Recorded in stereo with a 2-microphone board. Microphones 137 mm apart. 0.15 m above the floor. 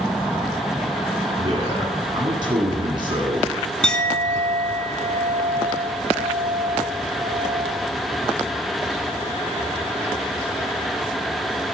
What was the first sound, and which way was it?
A man speaking, 35° right (ahead or behind).